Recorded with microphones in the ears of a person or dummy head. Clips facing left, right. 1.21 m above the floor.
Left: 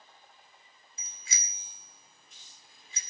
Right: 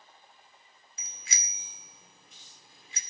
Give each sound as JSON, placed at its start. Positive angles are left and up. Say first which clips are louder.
{"t": 1.0, "sound": "a bicycle bell", "louder": "right 2 dB", "side_deg": -55, "distance_m": 2.5}